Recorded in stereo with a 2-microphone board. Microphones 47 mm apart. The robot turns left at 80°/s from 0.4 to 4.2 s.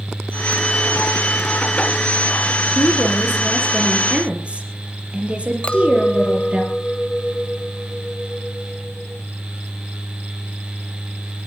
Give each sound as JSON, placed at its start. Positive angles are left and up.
{"t": 2.8, "sound": "a woman speaking", "azimuth_deg": 90, "distance_m": 5.0}
{"t": 5.6, "sound": "a clink", "side_deg": 25, "distance_m": 0.8}